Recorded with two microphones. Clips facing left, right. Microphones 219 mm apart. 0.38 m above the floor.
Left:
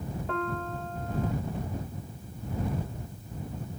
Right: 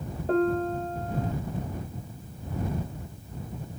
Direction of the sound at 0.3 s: 40° right (ahead or behind).